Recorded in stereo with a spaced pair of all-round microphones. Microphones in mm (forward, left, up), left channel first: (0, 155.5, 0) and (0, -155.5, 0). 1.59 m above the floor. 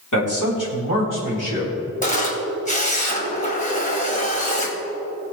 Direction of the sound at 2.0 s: 25° left (ahead or behind).